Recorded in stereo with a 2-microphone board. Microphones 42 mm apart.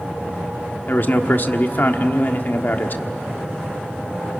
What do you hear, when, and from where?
0.9 s a man speaking: 45° left (ahead or behind), 1.4 m